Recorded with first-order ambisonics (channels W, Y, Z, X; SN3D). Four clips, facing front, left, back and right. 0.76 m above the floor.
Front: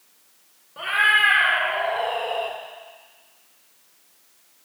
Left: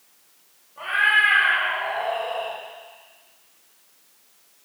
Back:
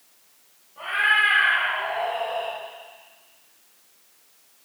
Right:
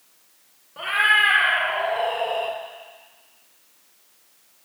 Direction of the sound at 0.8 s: 50° right.